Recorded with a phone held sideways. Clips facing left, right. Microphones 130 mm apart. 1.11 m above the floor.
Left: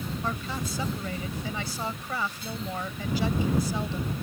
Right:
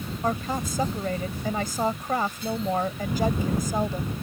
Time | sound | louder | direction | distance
0.2 | a woman speaking | right 9 dB | 45° right (ahead or behind) | ?